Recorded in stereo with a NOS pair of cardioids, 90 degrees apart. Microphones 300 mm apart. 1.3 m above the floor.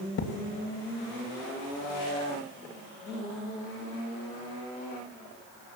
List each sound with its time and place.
0.2 s a thud: 55° left, 3 m